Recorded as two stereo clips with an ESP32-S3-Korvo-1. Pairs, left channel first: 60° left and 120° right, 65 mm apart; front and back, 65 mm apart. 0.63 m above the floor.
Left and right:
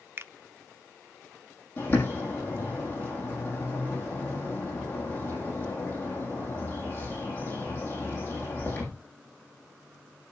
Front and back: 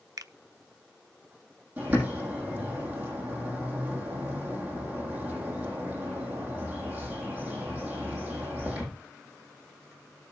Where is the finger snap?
170° right, 0.7 m.